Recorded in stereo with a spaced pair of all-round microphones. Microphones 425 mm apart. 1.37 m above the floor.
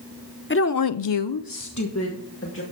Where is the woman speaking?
25° left (ahead or behind), 0.8 m; by 2.6 s 30° left (ahead or behind), 2 m.